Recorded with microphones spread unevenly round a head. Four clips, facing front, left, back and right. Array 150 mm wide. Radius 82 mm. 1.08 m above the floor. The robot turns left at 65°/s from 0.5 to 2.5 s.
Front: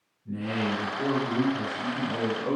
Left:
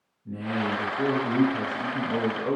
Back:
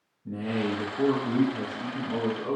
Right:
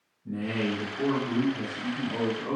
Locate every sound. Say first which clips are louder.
0.2 s a man speaking: left 1 dB, even; 165° right, 0.6 m; by 2.6 s 65° left, 0.6 m